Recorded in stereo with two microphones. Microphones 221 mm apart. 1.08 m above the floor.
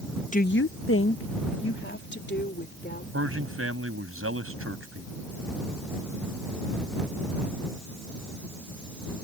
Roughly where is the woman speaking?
Left.